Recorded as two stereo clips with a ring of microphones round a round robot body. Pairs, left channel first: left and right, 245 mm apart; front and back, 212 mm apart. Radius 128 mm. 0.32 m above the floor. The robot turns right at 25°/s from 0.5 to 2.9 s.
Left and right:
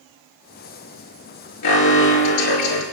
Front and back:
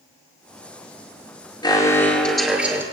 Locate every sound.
1.6 s an alarm: 70° left, 4.5 m; by 2.8 s 100° left, 4.5 m